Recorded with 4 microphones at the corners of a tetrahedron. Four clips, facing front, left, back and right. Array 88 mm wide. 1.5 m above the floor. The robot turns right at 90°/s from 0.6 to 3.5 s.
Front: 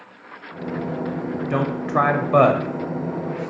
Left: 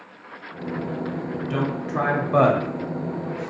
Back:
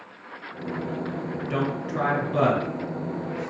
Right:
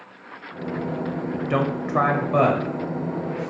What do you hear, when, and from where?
1.3 s a man speaking: 75° right, 0.7 m; by 3.5 s 120° left, 0.7 m